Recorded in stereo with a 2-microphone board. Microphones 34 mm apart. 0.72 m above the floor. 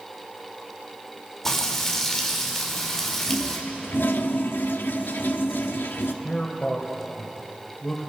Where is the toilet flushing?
70° left (ahead or behind), 0.8 m.